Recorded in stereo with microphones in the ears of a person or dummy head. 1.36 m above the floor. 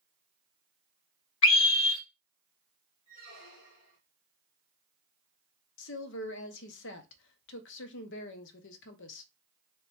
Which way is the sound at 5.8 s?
65° left (ahead or behind).